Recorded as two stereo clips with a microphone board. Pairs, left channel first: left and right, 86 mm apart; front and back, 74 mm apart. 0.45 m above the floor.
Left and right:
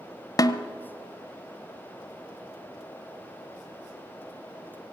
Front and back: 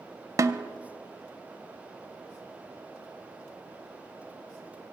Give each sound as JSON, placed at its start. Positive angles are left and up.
{"t": 0.4, "sound": "a snare drum", "azimuth_deg": 135, "distance_m": 0.6}